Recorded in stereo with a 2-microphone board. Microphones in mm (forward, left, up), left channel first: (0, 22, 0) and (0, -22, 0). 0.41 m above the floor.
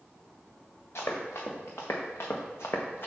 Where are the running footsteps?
80° left, 2.5 m; by 3.1 s 50° left (ahead or behind), 1.4 m.